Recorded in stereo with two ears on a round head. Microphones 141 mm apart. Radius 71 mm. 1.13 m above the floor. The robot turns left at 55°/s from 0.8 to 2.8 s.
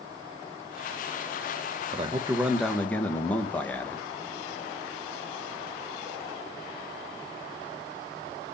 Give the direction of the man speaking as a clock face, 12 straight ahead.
5 o'clock.